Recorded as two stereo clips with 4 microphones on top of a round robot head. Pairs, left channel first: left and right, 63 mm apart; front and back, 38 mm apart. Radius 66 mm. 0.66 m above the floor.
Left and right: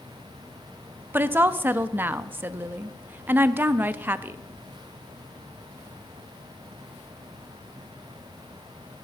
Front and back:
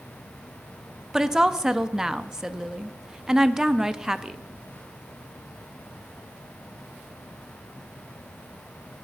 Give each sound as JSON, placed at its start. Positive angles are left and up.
{"t": 1.1, "sound": "a woman speaking", "azimuth_deg": -110, "distance_m": 0.7}